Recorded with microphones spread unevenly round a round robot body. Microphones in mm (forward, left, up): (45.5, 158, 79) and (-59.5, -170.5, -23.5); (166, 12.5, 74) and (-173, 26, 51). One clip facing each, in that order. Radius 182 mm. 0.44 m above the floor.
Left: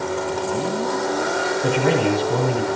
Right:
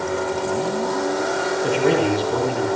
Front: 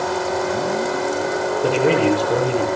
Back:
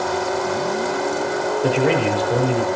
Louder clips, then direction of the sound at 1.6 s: Right 1 dB, front 2 dB; 80° left.